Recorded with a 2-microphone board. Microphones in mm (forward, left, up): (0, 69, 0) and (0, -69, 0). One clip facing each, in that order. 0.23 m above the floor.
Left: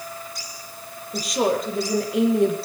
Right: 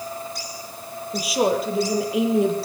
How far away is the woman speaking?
About 6 m.